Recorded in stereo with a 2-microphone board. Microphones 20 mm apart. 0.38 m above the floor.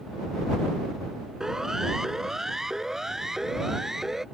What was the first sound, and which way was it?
A siren, 25° right (ahead or behind).